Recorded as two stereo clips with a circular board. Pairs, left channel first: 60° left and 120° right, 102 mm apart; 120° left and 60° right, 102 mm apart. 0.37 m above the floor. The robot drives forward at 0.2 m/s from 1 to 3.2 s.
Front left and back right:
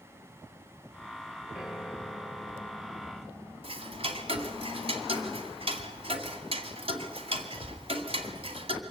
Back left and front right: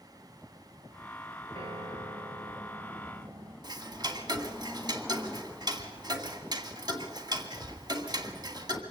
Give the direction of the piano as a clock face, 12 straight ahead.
1 o'clock.